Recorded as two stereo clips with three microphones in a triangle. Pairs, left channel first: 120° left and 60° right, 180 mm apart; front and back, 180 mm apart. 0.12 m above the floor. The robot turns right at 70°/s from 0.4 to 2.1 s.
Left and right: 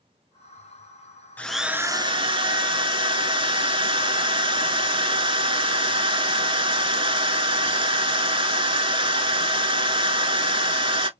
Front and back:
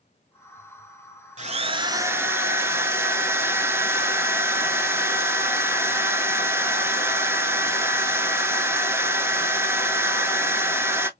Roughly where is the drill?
Behind.